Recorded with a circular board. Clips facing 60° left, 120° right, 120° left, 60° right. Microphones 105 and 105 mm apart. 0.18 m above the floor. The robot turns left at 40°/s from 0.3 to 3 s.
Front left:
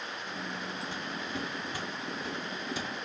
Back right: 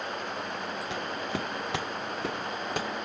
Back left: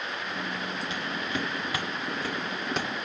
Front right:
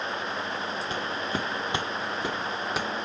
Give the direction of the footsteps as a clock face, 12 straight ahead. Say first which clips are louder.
Back right 4 dB, front right 2 dB; 4 o'clock.